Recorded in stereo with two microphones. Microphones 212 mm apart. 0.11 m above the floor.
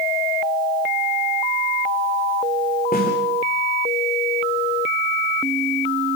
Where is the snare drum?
45° left (ahead or behind), 9.5 m.